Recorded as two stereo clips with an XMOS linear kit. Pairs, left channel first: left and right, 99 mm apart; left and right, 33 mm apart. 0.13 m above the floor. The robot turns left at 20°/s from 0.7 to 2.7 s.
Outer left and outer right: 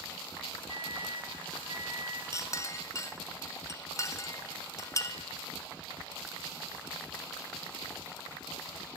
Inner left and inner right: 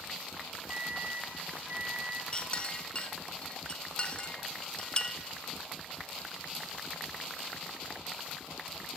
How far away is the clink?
About 0.7 m.